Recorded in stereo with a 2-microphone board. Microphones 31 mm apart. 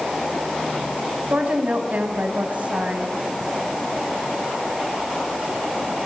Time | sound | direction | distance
1.3 | a woman speaking | 50° right (ahead or behind) | 3.5 m